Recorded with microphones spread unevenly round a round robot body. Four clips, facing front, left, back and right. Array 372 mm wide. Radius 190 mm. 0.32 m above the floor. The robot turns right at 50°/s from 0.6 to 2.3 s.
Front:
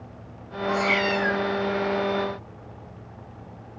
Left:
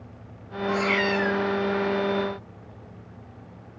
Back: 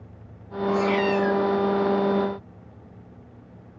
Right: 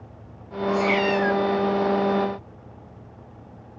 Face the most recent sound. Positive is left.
turn(degrees=-80)